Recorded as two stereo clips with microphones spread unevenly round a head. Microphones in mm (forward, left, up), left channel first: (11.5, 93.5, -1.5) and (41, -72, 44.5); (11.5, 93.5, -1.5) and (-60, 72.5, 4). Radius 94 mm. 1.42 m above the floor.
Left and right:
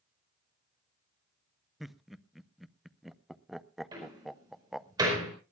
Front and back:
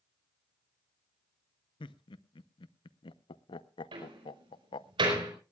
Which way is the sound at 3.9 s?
150° right.